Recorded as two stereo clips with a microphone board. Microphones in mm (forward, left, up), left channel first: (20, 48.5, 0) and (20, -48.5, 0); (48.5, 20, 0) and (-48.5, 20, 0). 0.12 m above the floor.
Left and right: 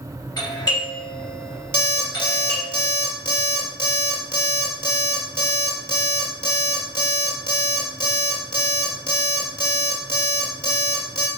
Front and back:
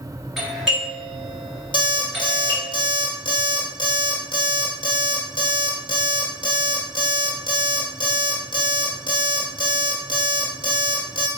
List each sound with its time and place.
0.4 s a doorbell: 95° left, 2 m
1.7 s an alarm clock: 25° right, 1.5 m